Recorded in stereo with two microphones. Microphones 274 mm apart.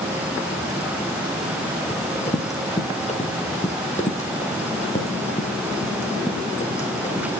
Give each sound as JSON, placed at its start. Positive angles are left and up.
{"t": 1.9, "sound": "running footsteps", "side_deg": 25, "distance_m": 2.5}